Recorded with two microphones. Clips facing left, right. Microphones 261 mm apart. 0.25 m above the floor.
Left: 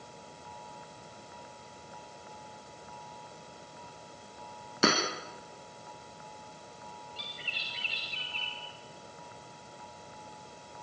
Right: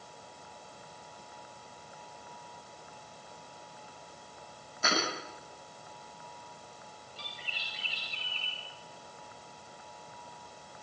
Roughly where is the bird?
Right.